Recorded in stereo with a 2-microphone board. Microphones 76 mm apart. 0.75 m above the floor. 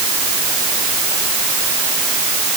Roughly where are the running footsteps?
No running footsteps in this recording.